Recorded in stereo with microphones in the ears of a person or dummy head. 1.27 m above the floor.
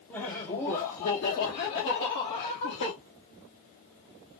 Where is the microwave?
No microwave in this recording.